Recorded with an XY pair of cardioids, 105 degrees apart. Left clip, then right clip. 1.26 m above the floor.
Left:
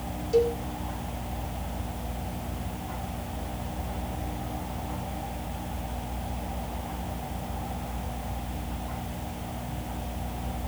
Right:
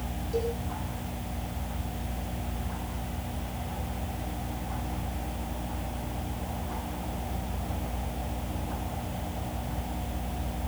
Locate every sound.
0.3 s a cowbell: 50° left, 4.5 m